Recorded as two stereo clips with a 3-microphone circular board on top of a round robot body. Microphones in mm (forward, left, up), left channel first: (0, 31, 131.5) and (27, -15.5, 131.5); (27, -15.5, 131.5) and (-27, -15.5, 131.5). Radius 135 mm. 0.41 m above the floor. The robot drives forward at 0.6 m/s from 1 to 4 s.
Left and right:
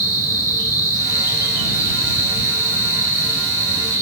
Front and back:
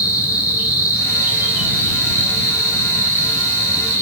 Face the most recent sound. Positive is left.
turn(degrees=160)